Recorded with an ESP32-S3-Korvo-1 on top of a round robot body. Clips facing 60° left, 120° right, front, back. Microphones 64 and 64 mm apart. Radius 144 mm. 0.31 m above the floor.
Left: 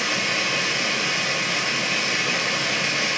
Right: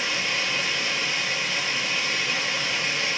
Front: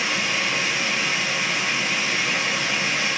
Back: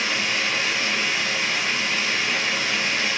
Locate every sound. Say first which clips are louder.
0.0 s running water: left 3 dB, even; 85° left, 1.2 m